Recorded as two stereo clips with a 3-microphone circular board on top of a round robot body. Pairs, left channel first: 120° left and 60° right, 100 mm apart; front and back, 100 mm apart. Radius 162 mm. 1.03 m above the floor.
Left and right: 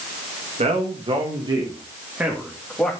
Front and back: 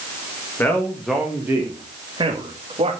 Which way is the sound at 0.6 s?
70° right.